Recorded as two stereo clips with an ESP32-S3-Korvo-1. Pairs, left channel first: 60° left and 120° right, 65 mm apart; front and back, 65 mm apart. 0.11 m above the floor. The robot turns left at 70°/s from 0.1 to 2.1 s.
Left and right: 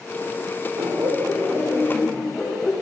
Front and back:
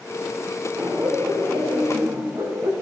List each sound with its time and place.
0.8 s laughter: 125° right, 7 m; by 2.7 s 145° left, 7 m